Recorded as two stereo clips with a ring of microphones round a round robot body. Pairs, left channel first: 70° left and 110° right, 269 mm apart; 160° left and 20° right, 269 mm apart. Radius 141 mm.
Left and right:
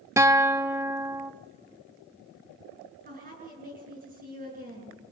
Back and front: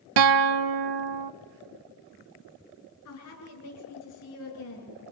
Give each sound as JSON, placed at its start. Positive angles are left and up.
{"t": 0.2, "sound": "a guitar", "azimuth_deg": -30, "distance_m": 0.7}
{"t": 3.0, "sound": "a woman speaking", "azimuth_deg": -170, "distance_m": 9.5}